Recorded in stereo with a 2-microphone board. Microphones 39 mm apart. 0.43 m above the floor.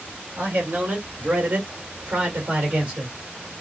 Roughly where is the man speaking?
Right.